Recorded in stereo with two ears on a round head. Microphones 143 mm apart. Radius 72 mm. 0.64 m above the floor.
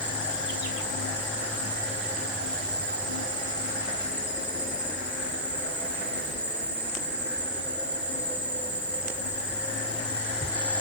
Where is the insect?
10° right (ahead or behind), 2.5 m.